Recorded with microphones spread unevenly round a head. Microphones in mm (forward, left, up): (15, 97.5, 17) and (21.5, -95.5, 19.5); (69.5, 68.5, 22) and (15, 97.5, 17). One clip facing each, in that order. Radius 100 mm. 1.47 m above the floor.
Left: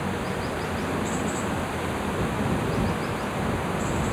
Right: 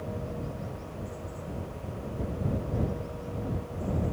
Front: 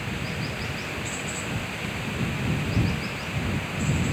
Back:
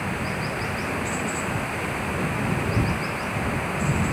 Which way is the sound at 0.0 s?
90° left.